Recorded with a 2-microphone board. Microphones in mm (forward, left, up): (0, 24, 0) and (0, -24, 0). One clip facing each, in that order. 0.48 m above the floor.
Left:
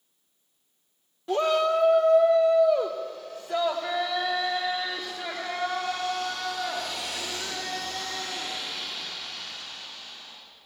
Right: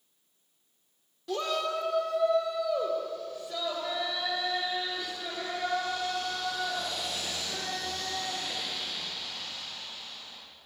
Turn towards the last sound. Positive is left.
turn(degrees=35)  # may be behind; listen again after turning